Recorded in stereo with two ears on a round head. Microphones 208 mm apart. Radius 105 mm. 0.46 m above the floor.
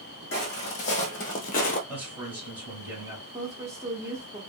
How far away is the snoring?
I don't hear snoring.